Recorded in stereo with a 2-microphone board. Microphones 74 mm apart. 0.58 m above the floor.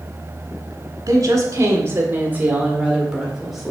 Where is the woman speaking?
50° right (ahead or behind), 1.5 m; by 3.7 s centre (ahead or behind), 1.8 m.